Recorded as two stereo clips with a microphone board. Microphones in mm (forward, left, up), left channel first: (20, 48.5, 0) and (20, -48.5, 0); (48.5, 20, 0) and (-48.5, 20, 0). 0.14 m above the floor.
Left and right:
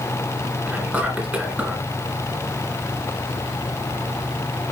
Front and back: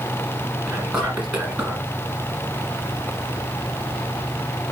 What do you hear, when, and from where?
0.7 s whispering: 115° right, 1.5 m